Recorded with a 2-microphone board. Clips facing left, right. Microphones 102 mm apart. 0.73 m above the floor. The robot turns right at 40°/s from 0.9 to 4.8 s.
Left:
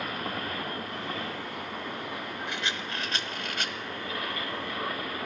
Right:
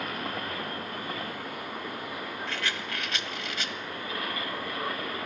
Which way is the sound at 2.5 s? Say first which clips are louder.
Even; 15° left.